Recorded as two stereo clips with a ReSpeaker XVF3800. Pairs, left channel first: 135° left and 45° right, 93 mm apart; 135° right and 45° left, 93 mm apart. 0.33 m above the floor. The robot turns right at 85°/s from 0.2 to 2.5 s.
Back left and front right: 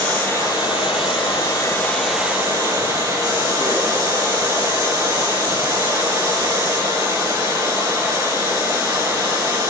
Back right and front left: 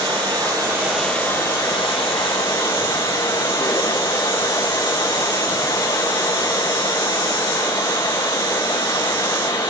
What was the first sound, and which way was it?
Running water, 65° left.